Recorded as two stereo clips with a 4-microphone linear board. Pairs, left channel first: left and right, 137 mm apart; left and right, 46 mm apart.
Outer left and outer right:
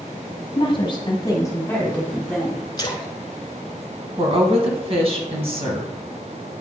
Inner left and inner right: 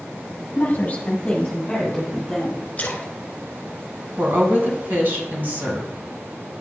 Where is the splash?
30° left (ahead or behind), 1.0 m.